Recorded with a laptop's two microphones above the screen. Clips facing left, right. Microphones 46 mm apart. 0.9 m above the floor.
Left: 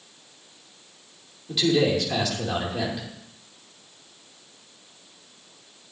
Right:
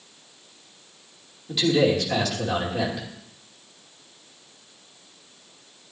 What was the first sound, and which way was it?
A man speaking, centre (ahead or behind).